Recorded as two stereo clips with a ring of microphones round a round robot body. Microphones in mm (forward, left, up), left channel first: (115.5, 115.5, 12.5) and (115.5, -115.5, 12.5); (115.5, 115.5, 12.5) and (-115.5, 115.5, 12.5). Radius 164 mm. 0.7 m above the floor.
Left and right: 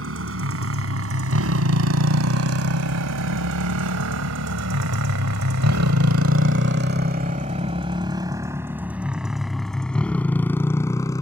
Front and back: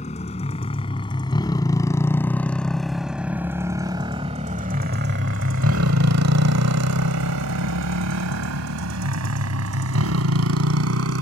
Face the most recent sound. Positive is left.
turn(degrees=170)